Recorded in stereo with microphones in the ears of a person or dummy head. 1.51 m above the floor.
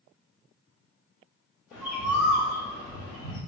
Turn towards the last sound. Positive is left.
turn(degrees=-5)  # may be behind; listen again after turning